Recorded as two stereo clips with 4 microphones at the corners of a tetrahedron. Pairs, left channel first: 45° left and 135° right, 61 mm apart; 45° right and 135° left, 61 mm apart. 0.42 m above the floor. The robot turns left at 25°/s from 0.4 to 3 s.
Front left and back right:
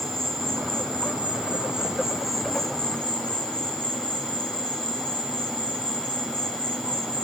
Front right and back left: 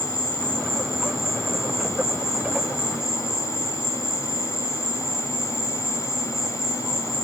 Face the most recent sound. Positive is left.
turn(degrees=115)